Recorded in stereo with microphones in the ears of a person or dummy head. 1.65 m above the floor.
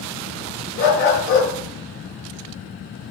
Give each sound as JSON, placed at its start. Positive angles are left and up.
{"t": 0.8, "sound": "a dog barking", "side_deg": 60, "distance_m": 5.0}